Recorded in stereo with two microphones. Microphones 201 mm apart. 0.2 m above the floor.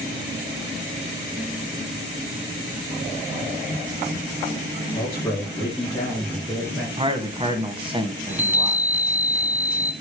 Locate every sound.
5.0 s a man speaking: 15° left (ahead or behind), 3.5 m; by 6.9 s centre (ahead or behind), 3.5 m
7.0 s a man speaking: 25° right (ahead or behind), 1.4 m
8.3 s a chime: 10° right (ahead or behind), 1.0 m